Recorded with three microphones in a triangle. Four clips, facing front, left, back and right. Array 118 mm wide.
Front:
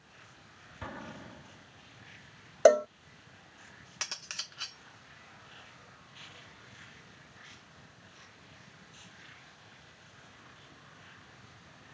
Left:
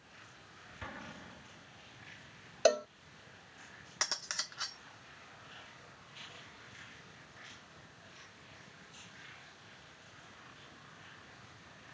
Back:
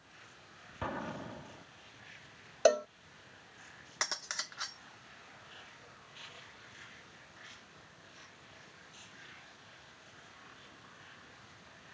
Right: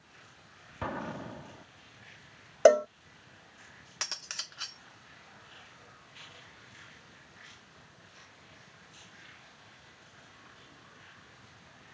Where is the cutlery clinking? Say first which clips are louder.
Left 3 dB, back 5 dB; 150° left.